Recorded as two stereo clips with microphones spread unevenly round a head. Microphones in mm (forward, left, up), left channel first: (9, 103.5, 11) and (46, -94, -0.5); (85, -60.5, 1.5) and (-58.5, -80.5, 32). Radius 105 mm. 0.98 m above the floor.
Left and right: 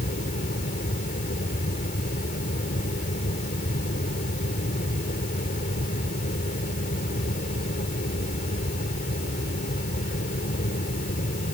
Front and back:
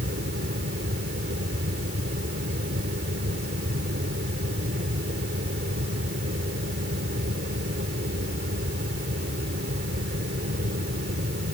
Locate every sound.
0.0 s a fan: 155° left